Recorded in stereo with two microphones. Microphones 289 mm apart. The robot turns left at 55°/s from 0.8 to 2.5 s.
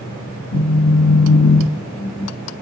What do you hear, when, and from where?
0.5 s a phone buzzing: 110° left, 0.6 m; by 2.3 s 30° left, 0.6 m